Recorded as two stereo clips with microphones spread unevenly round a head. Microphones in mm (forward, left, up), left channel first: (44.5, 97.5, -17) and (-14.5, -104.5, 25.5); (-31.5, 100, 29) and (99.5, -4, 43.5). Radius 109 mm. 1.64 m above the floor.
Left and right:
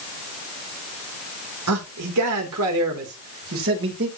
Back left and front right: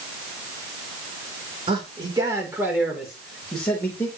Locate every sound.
1.7 s a man speaking: 105° right, 3 m; by 4.1 s 140° right, 3.5 m